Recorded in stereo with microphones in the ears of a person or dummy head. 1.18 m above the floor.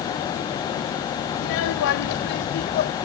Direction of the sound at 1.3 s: 75° left (ahead or behind).